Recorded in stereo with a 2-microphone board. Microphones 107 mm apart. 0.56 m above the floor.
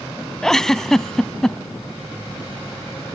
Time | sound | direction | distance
0.4 | a giggle | 5° left (ahead or behind) | ?